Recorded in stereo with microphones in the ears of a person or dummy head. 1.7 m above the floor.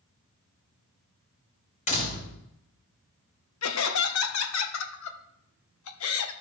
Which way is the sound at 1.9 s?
40° left (ahead or behind).